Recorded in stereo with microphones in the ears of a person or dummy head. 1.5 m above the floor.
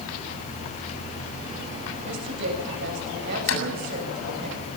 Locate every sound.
2.0 s a woman speaking: 60° right (ahead or behind), 7.5 m; by 4.5 s 50° right (ahead or behind), 8 m
3.5 s a door slam: 85° left, 7.5 m